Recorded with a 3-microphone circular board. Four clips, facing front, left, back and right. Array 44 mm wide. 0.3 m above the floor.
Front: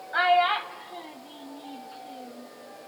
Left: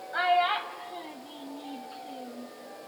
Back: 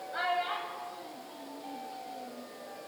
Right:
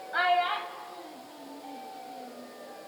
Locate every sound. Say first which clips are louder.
0.1 s a child speaking: left 1 dB, front 11 dB; 15° right, 1.0 m; by 2.5 s 65° left, 3 m